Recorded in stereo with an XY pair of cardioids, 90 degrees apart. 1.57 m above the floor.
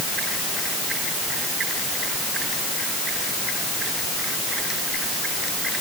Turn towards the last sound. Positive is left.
No sound to turn to.